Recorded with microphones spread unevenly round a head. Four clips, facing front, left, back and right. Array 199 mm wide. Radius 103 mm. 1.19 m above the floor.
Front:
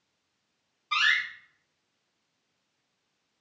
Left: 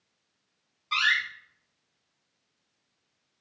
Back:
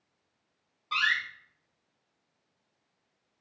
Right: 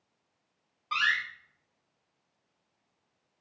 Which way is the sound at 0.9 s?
120° right.